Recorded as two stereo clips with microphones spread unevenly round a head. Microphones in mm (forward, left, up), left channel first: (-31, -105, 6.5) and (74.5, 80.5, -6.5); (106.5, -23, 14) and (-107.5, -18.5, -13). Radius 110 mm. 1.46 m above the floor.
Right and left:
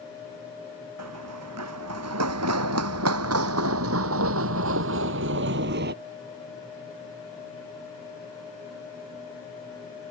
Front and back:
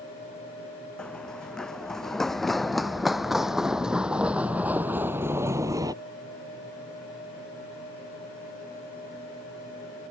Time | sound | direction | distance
1.0 | running footsteps | 85° left | ?